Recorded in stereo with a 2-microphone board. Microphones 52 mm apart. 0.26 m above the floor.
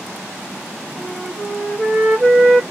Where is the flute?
10° right (ahead or behind), 5.5 m.